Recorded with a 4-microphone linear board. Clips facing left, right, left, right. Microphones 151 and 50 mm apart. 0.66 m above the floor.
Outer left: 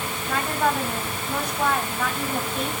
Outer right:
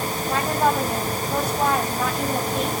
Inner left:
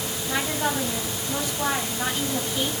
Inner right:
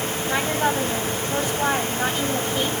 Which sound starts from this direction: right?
A woman speaking, at 0.3 s.